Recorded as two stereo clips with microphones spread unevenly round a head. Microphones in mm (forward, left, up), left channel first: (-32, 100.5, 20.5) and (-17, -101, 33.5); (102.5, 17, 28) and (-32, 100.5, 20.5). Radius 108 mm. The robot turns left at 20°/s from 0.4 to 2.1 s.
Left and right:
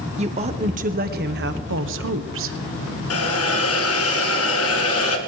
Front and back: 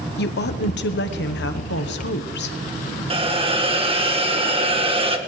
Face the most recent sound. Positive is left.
turn(degrees=95)